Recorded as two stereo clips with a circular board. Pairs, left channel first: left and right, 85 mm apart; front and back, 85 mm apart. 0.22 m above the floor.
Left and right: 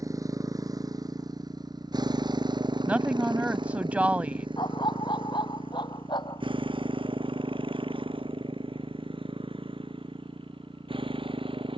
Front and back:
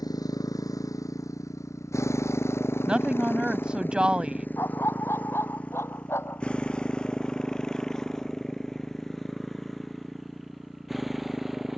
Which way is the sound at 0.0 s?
40° right.